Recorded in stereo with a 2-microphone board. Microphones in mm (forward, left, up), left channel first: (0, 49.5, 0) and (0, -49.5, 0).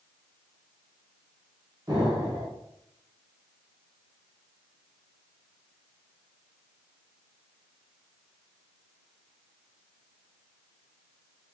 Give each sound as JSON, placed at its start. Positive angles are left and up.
{"t": 1.9, "sound": "an explosion", "side_deg": -40, "distance_m": 1.6}